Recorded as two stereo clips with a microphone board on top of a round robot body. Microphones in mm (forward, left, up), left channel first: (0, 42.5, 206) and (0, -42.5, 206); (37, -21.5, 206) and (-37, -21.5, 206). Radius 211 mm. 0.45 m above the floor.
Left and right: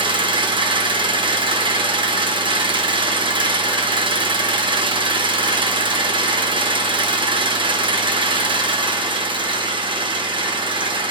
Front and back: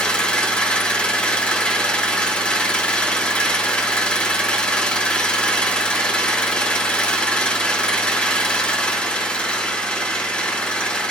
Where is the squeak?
I don't hear a squeak.